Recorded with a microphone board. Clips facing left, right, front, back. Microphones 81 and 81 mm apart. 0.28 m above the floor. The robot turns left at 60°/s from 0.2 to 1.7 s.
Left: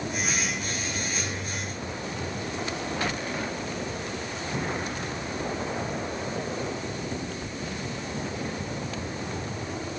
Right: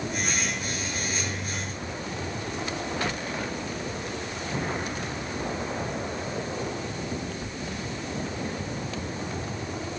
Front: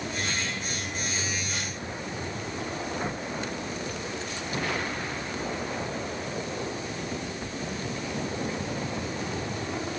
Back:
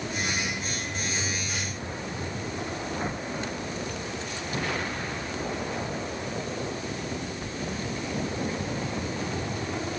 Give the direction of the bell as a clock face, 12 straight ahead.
I don't hear a bell.